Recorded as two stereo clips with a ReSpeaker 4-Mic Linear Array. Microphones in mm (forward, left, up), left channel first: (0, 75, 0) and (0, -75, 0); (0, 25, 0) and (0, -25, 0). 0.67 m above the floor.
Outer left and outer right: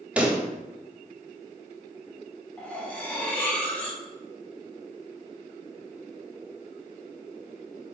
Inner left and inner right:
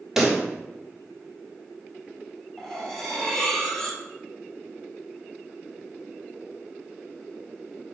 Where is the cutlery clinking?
10° left (ahead or behind), 0.9 m.